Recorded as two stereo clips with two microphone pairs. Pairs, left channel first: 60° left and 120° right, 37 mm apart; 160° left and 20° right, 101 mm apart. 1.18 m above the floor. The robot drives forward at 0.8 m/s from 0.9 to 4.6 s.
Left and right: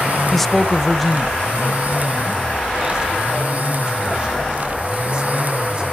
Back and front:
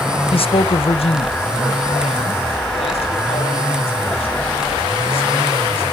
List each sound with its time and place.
0.3 s a man speaking: 145° left, 0.5 m; by 5.8 s 175° left, 3.5 m